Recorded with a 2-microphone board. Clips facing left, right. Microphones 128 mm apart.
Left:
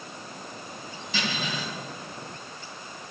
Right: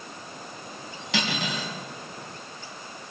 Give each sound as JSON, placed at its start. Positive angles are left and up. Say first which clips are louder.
{"t": 1.1, "sound": "cutlery clinking", "louder": "right 2 dB", "side_deg": -80, "distance_m": 3.5}